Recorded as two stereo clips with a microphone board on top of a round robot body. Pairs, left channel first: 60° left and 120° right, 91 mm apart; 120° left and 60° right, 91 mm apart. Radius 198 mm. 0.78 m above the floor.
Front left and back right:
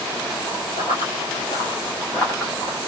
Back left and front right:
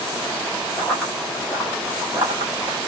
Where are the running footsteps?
45° left, 1.3 m; by 2.8 s 65° right, 0.8 m.